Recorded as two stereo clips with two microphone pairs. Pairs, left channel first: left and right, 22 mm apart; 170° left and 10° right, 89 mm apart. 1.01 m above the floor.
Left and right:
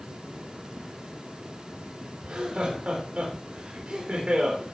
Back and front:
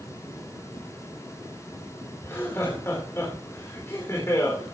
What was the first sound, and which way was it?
Laughter, 130° right.